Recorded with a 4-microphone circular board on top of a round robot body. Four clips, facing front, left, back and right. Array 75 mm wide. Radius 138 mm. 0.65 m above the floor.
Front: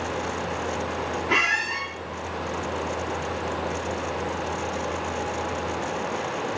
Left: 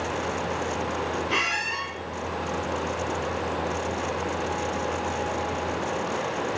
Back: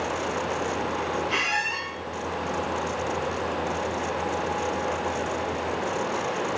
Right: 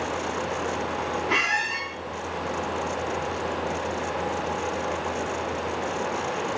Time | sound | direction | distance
1.3 | a squeak | 40° right | 7 m